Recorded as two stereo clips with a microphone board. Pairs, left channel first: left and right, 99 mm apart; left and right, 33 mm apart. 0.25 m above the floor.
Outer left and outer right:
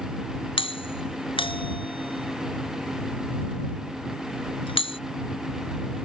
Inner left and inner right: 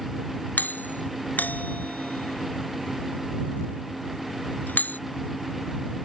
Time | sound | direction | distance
0.6 | a doorbell | 65° left (ahead or behind) | ?